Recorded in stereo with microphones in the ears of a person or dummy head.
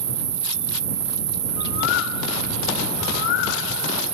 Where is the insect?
20° right (ahead or behind).